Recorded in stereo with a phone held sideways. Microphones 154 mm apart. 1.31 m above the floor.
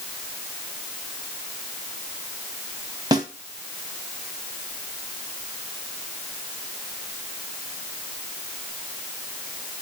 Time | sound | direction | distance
3.1 | a snare drum | 25° right (ahead or behind) | 2.0 m